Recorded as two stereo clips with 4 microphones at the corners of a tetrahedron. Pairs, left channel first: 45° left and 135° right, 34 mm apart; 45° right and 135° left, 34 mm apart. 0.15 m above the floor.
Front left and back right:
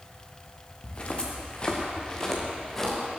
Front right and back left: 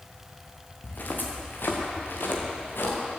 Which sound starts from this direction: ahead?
Footsteps, at 0.8 s.